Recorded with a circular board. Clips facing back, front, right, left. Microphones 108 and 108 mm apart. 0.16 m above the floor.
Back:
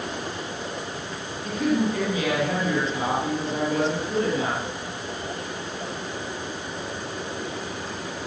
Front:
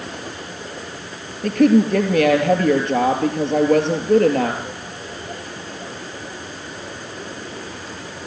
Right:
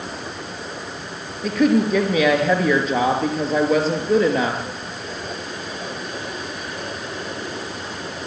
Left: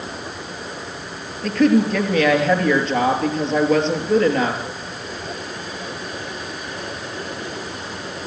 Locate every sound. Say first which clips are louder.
1.4 s a woman speaking: front 9 dB, left 1 dB; 5° right, 3.5 m